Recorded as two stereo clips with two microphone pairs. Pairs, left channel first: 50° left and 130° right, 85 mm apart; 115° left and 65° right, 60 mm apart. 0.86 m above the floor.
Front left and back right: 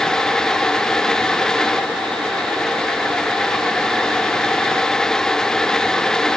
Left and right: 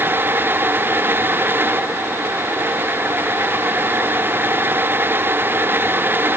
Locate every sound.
Only background noise.